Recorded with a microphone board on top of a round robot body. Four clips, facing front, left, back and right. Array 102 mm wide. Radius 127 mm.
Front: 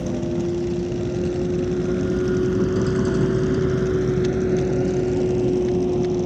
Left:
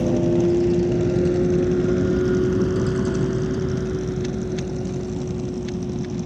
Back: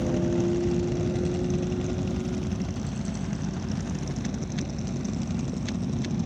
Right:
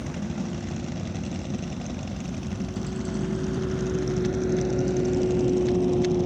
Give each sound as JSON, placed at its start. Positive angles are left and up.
{"t": 0.0, "sound": "a vehicle", "azimuth_deg": 90}